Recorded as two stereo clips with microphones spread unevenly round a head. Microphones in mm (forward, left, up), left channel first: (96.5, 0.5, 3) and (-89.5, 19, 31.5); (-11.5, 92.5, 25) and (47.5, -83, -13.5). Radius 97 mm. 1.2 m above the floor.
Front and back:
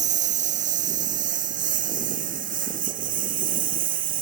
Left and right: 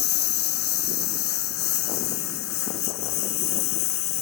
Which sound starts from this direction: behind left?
A lawn mower, at 0.0 s.